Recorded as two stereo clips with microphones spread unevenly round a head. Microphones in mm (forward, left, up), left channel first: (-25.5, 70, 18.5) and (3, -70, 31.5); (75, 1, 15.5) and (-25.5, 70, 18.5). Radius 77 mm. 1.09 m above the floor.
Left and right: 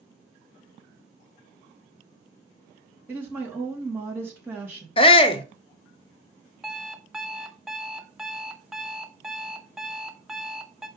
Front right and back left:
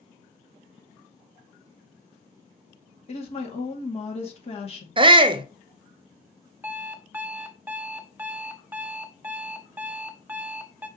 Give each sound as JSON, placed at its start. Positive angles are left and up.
{"t": 3.1, "sound": "a woman speaking", "azimuth_deg": 0, "distance_m": 2.5}
{"t": 5.0, "sound": "a shout", "azimuth_deg": 120, "distance_m": 0.9}
{"t": 6.6, "sound": "an alarm clock", "azimuth_deg": -155, "distance_m": 0.5}